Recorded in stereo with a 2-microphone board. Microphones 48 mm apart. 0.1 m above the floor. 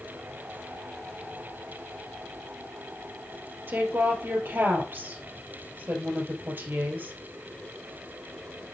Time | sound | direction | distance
3.7 | a woman speaking | 45° right (ahead or behind) | 2.5 m